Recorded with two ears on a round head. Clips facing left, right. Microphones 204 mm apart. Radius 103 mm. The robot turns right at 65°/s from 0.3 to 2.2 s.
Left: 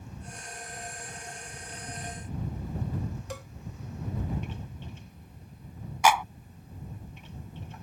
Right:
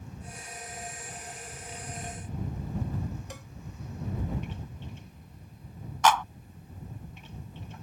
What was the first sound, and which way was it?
A cowbell, 70° left (ahead or behind).